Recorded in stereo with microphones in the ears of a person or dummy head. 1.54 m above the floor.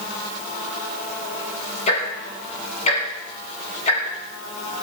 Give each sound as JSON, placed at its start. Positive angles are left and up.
{"t": 1.9, "sound": "ticking", "side_deg": 45, "distance_m": 7.0}